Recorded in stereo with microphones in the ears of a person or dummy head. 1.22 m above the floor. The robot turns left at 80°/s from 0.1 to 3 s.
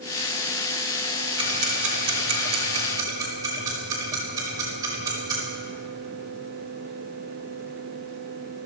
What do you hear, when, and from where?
1.4 s ticking: 30° right (ahead or behind), 3 m; by 5.4 s 20° right (ahead or behind), 3 m